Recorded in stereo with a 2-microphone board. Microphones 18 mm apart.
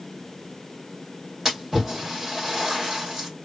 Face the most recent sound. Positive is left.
turn(degrees=-25)  # may be behind; listen again after turning